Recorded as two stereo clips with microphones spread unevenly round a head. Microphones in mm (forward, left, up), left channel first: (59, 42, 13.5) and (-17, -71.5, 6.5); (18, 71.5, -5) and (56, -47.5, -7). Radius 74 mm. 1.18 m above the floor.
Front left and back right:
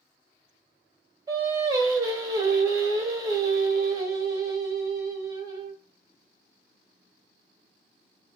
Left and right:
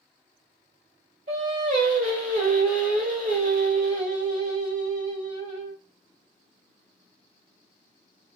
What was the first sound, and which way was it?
Singing, 65° right.